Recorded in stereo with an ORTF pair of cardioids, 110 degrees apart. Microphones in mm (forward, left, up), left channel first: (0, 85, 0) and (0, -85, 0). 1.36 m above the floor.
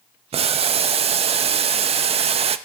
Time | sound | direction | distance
0.3 | boiling | 35° right | 0.7 m